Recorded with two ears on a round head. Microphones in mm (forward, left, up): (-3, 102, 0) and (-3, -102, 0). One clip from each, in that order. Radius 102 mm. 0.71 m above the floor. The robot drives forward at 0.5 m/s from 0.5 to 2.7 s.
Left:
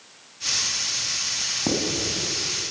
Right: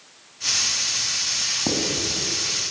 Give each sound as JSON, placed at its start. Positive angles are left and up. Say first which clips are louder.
{"t": 1.7, "sound": "writing", "louder": "right 1 dB", "side_deg": -5, "distance_m": 3.5}